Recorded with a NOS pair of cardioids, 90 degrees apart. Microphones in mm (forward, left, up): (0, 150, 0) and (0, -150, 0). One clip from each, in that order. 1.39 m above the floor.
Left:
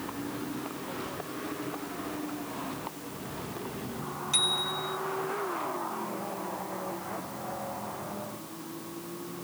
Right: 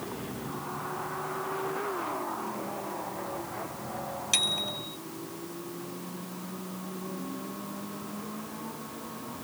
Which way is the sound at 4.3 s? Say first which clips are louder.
Even; 60° right.